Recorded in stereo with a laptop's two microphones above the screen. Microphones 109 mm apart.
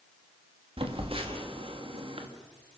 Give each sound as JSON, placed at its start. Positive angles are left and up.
{"t": 0.8, "sound": "a phone buzzing", "side_deg": -60, "distance_m": 2.0}